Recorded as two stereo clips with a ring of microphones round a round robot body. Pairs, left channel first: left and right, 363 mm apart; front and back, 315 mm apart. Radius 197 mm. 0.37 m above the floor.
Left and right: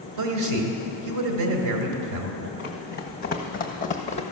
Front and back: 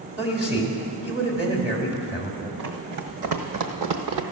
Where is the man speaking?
95° right, 1.7 m.